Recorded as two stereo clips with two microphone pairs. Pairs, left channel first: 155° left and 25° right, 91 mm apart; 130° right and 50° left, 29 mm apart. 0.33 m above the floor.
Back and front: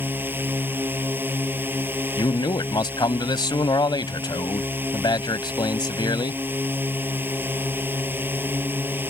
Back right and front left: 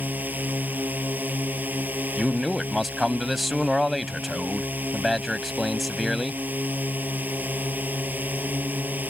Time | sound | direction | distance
0.0 | a drone | 45° left | ?
2.2 | a man speaking | 140° left | ?